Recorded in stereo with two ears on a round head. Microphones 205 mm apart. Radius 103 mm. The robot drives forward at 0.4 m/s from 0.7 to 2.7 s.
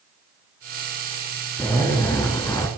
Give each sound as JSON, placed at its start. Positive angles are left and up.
{"t": 1.6, "sound": "a zipper", "side_deg": 10, "distance_m": 2.5}